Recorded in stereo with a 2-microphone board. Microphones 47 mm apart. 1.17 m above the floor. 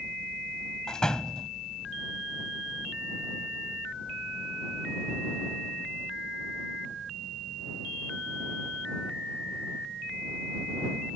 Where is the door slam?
15° left (ahead or behind).